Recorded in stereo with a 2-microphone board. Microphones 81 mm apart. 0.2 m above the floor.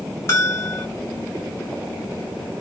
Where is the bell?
35° left (ahead or behind), 1.5 m.